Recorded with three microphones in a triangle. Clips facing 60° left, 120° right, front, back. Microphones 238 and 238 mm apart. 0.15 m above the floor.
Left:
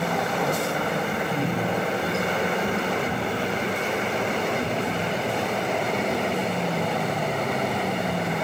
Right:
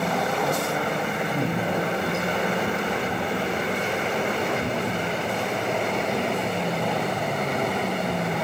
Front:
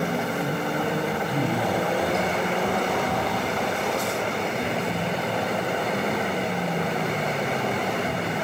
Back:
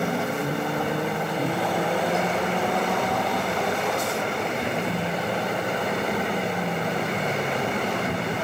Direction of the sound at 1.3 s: 50° right.